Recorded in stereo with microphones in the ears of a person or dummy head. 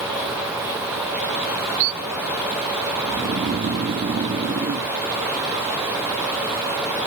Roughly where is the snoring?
Right.